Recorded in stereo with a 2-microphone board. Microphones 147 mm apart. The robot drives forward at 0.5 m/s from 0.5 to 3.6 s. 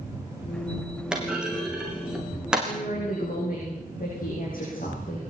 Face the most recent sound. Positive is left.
turn(degrees=75)  # may be behind; listen again after turning